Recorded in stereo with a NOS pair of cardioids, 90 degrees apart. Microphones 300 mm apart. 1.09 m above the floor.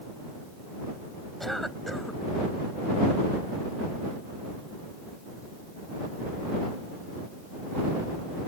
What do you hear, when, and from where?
1.4 s a cough: straight ahead